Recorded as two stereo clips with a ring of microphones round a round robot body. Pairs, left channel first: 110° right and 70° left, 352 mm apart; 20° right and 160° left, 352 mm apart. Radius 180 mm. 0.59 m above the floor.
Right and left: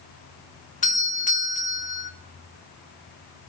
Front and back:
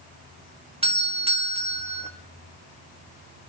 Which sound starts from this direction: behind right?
A doorbell, at 0.8 s.